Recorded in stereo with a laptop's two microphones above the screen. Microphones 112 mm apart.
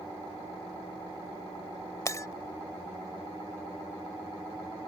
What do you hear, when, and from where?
2.0 s breaking glass: 30° left (ahead or behind)